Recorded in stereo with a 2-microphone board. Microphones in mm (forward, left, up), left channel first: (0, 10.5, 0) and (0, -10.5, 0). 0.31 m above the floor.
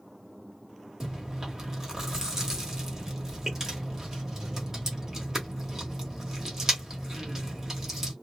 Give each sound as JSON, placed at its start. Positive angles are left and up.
{"t": 1.0, "sound": "chewing", "side_deg": -25, "distance_m": 1.0}